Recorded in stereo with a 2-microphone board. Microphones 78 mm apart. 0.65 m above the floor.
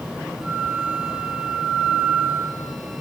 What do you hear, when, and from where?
0.4 s a flute: 5° right (ahead or behind), 2 m